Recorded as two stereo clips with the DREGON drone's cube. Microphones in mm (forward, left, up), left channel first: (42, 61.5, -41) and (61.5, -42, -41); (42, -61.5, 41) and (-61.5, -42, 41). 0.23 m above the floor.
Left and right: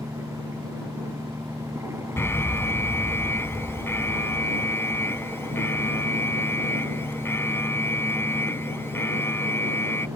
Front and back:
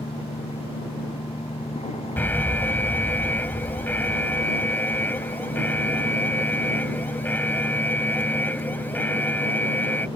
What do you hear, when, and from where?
0.0 s an engine running: 15° right
2.2 s an alarm: 50° left